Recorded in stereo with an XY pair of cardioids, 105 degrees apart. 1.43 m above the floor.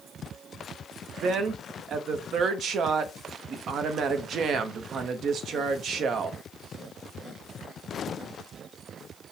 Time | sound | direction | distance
1.2 | a woman speaking | 60° right | 0.7 m